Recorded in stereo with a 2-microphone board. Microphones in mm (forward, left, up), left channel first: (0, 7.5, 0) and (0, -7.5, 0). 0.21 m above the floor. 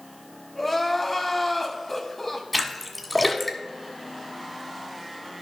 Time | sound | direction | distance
0.6 | crying | 15° left (ahead or behind) | 1.4 m
2.5 | a splash | centre (ahead or behind) | 1.3 m